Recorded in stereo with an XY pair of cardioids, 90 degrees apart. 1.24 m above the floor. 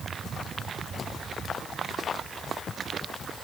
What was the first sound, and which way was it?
Only background noise.